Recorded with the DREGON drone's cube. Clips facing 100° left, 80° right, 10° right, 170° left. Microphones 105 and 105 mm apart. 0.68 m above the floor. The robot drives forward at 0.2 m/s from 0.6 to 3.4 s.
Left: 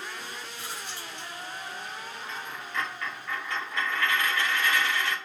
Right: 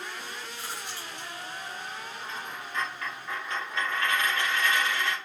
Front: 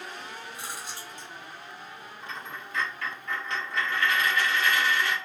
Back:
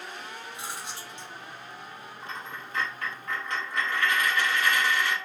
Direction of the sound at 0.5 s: 125° right.